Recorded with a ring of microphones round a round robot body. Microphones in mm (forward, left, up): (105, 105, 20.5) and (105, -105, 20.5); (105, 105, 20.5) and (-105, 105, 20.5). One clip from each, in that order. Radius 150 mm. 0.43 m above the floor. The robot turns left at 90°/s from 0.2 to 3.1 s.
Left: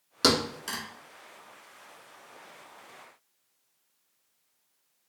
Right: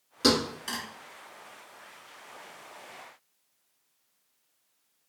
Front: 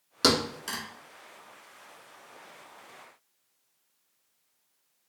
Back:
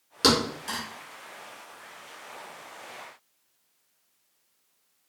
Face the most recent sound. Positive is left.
turn(degrees=170)